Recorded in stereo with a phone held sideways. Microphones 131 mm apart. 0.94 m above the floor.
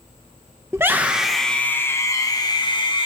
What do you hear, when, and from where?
0.7 s a scream: 20° right (ahead or behind), 1.0 m; by 3.1 s 40° left (ahead or behind), 1.6 m